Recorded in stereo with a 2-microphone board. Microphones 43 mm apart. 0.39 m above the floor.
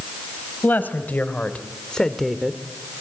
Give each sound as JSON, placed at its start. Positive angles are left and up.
{"t": 0.6, "sound": "a woman speaking", "side_deg": 45, "distance_m": 3.0}